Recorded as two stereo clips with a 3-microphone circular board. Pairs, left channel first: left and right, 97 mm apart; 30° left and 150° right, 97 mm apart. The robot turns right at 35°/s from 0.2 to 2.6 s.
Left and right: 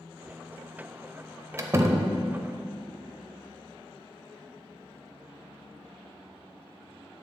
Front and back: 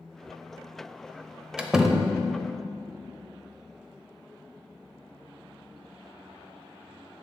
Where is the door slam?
75° right, 0.6 m; by 2.1 s 55° right, 0.6 m.